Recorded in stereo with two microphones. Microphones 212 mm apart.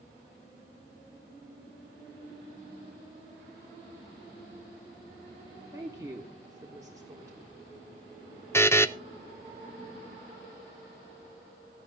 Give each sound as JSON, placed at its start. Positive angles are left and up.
{"t": 5.7, "sound": "a woman speaking", "side_deg": -15, "distance_m": 1.3}
{"t": 8.5, "sound": "a buzzer", "side_deg": 10, "distance_m": 0.5}